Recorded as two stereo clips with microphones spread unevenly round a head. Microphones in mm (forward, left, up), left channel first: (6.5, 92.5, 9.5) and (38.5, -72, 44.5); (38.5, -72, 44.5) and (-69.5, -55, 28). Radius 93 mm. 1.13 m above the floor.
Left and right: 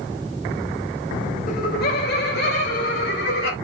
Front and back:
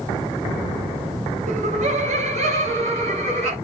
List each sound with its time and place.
1.5 s laughter: 145° left, 1.2 m; by 3.5 s 130° left, 3.5 m